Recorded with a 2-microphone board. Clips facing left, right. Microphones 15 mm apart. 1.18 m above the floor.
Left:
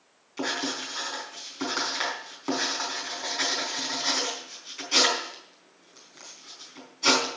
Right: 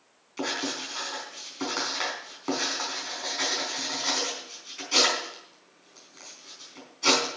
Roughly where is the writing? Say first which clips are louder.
Left 1 dB; centre.